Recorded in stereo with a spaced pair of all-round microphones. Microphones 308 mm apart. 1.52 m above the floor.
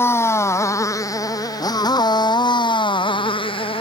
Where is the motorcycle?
10° left (ahead or behind); by 3.8 s 15° left (ahead or behind).